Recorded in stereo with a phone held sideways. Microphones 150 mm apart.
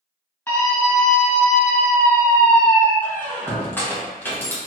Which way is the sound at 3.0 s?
15° left (ahead or behind).